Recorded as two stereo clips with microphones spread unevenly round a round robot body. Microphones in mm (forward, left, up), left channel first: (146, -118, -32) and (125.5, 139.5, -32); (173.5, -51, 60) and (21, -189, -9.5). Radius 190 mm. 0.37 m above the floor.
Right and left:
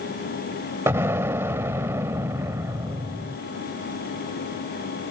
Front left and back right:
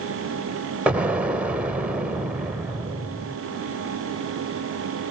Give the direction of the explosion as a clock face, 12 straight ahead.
6 o'clock.